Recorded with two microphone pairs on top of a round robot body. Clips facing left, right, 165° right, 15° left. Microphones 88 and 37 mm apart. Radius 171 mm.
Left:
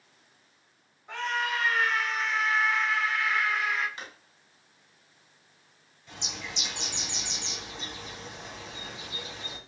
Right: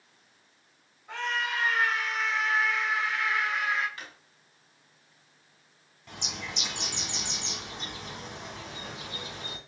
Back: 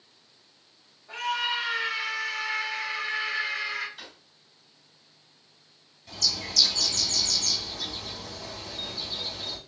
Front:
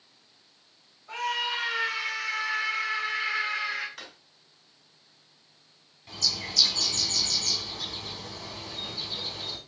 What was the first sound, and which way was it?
A scream, 5° left.